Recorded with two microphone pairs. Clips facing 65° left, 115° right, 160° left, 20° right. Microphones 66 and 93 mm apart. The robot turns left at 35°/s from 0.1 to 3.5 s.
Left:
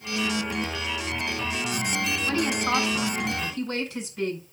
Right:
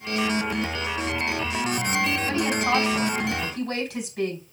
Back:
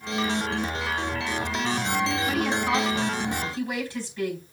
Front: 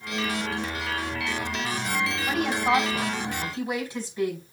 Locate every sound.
2.3 s a woman speaking: 50° right, 5 m; by 4.4 s 95° right, 5 m